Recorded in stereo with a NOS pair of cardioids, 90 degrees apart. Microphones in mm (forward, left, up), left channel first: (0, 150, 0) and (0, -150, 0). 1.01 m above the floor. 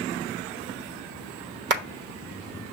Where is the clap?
35° right, 1.0 m.